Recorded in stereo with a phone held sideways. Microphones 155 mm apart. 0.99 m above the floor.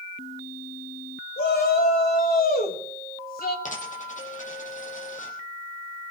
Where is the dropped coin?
55° left (ahead or behind), 4.5 m.